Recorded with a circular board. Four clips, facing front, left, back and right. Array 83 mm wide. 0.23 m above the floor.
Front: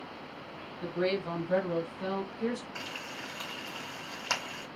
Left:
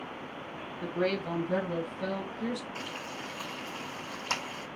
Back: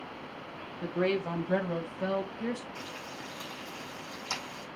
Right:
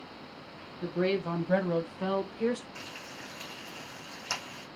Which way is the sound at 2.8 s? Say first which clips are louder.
Left 5 dB, even; 5° left.